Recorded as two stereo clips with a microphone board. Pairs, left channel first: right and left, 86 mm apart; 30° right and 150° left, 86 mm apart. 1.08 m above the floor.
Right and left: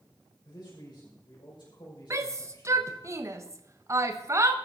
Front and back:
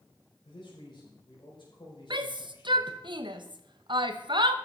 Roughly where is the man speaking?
Ahead right.